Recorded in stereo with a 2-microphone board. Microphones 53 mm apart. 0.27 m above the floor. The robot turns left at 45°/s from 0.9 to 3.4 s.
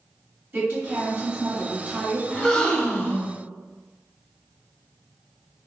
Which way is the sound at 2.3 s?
165° left.